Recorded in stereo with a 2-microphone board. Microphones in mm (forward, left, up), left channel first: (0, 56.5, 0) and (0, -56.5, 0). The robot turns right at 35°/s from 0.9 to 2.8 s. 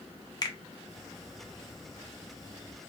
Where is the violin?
No violin in this recording.